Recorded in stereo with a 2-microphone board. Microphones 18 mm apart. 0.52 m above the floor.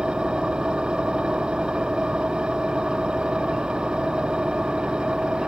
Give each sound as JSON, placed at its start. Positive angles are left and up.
{"t": 0.0, "sound": "an engine running", "side_deg": -75}